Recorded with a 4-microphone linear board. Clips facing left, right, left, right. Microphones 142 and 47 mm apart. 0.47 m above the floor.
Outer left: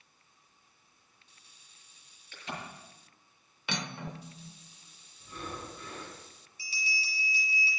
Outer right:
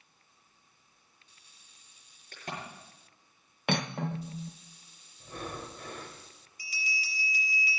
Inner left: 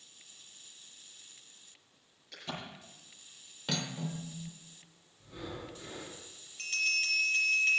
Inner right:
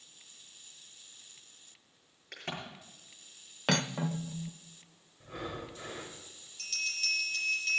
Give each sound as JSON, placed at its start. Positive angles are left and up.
{"t": 2.3, "sound": "a crack", "side_deg": -50, "distance_m": 6.5}
{"t": 3.7, "sound": "cutlery clinking", "side_deg": -55, "distance_m": 0.6}
{"t": 5.2, "sound": "breathing", "side_deg": -60, "distance_m": 2.5}
{"t": 6.6, "sound": "a bell", "side_deg": 30, "distance_m": 5.0}